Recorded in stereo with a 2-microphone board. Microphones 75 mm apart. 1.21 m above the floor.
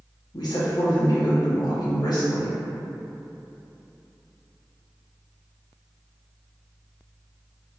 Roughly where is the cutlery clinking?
No cutlery clinking in this recording.